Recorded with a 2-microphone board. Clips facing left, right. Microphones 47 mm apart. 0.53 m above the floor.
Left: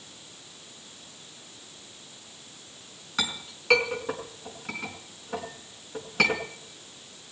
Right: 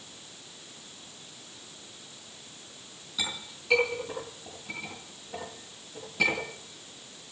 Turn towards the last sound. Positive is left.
turn(degrees=70)  # may be behind; listen again after turning